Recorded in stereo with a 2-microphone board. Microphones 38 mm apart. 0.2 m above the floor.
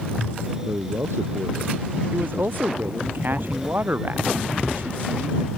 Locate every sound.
0.7 s a man speaking: 75° right (ahead or behind); by 3.1 s 80° right
2.1 s a man speaking: 55° right (ahead or behind)